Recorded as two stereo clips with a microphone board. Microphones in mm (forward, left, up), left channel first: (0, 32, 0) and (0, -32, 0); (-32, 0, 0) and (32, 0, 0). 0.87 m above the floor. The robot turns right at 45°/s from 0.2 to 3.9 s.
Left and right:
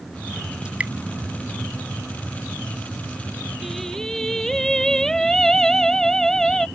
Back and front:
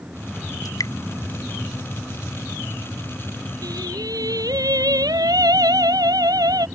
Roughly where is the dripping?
Behind.